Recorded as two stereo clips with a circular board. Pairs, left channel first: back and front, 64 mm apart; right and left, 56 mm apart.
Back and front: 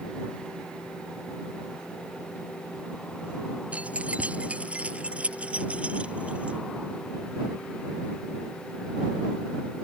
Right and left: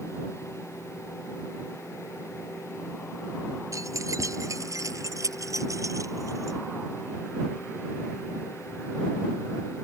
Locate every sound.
3.7 s keys jangling: 70° left